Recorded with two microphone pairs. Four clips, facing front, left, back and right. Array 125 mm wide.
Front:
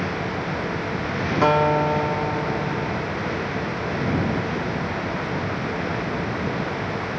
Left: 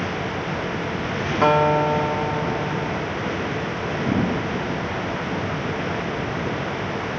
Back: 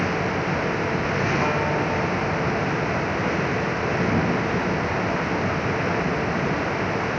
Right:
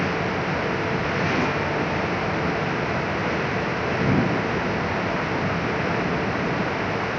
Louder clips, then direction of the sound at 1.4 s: Left 7 dB, front 5 dB; 60° left.